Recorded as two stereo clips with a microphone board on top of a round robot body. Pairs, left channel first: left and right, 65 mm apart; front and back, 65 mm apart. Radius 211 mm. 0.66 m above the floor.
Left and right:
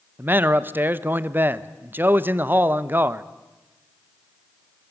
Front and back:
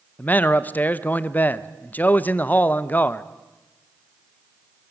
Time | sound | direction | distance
0.2 | a man speaking | 50° right | 1.1 m